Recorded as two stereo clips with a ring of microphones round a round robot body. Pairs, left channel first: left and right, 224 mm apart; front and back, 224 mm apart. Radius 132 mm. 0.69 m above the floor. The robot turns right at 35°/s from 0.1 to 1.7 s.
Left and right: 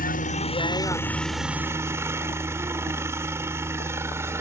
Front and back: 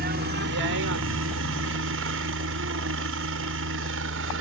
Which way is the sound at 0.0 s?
135° left.